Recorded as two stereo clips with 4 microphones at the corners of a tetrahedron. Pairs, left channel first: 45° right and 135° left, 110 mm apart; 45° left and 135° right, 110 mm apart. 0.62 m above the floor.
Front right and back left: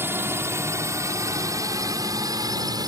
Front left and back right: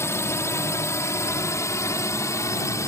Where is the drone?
85° left; by 2.9 s 100° left.